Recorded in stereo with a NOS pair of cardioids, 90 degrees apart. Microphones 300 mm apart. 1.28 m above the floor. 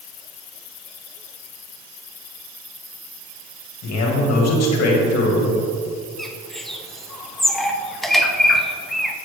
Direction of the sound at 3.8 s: 60° left.